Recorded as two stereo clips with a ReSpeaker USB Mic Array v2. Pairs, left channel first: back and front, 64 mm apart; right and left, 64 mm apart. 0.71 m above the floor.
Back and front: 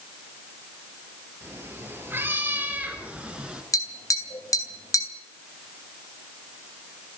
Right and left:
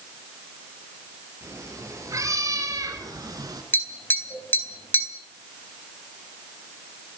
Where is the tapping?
150° right, 3 m.